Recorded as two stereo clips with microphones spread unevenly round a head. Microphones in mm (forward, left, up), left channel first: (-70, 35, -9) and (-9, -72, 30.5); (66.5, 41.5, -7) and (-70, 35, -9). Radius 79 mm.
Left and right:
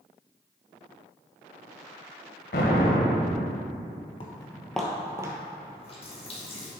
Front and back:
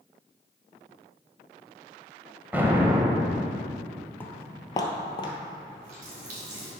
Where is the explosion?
105° left, 1.4 m.